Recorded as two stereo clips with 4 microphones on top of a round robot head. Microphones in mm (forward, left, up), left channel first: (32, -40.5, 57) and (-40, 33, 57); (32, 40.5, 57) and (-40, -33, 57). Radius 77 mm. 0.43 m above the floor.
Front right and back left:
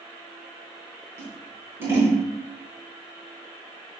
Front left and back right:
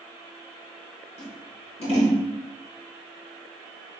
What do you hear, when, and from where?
1.2 s scissors: 65° left, 4.5 m